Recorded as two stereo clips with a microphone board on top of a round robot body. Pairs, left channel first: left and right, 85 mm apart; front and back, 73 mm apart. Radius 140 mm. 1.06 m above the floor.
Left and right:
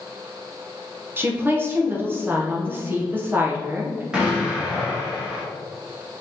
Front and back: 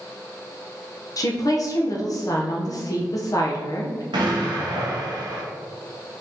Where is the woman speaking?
25° right, 0.7 m.